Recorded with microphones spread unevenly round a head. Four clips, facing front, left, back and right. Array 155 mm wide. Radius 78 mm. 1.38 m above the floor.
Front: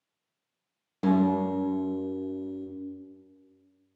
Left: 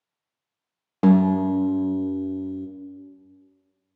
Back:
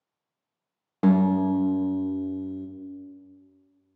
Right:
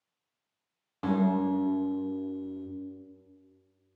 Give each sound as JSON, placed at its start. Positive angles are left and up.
{"t": 1.0, "sound": "a guitar", "azimuth_deg": 100, "distance_m": 0.6}